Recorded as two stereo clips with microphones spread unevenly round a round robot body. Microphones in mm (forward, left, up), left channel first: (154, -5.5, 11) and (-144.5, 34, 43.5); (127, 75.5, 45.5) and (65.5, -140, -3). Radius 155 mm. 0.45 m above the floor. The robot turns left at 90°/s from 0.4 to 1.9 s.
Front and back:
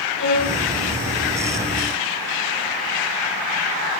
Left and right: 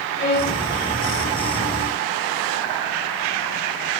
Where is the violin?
30° left, 3 m; by 0.6 s 10° left, 3 m.